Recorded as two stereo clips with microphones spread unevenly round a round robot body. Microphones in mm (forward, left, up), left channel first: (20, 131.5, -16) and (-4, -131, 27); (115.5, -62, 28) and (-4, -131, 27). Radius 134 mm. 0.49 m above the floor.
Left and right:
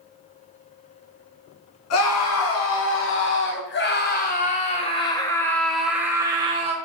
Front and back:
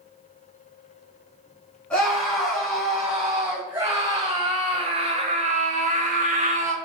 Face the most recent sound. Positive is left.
turn(degrees=-165)